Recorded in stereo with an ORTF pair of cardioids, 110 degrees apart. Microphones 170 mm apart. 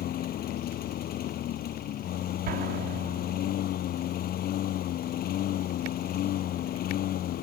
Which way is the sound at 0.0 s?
60° left.